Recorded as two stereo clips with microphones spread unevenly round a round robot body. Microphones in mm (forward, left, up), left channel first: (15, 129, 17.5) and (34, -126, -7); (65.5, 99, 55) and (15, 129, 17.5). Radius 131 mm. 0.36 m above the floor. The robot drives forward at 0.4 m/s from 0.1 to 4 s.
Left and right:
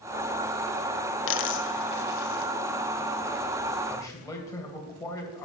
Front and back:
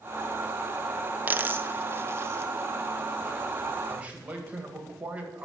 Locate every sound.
1.3 s a dropped coin: 130° left, 0.8 m; by 2.5 s 150° left, 1.2 m
3.9 s a man speaking: 175° left, 2 m